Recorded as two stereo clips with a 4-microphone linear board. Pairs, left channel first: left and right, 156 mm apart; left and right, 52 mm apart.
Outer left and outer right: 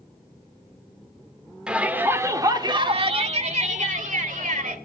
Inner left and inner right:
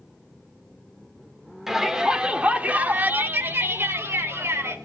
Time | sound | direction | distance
1.7 | a shout | 5° right (ahead or behind) | 1.8 m